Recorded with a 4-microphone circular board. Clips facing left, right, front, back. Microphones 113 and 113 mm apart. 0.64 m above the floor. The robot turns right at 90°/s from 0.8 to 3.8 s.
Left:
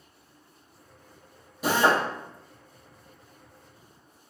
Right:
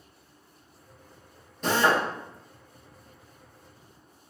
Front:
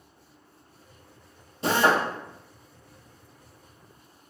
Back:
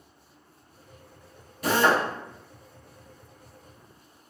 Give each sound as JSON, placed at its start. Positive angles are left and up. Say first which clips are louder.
{"t": 1.6, "sound": "a drill", "louder": "left 1 dB, even", "azimuth_deg": 15, "distance_m": 0.6}